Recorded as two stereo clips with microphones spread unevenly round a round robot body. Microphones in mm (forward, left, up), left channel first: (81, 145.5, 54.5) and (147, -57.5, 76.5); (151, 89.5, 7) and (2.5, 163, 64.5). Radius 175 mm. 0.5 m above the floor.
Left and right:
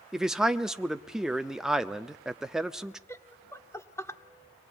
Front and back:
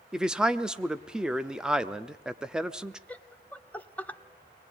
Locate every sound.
0.1 s a man speaking: 25° left, 0.8 m
3.1 s laughter: 35° left, 1.7 m